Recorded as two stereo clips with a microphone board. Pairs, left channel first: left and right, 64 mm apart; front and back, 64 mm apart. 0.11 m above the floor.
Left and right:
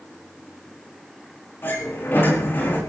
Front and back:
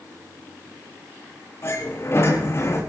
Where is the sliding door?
40° left, 4.5 m.